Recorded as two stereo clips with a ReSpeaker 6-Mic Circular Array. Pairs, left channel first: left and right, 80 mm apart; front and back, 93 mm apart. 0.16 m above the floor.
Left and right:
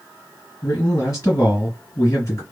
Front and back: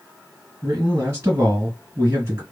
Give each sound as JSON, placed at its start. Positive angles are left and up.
{"t": 0.6, "sound": "a man speaking", "azimuth_deg": 130, "distance_m": 2.5}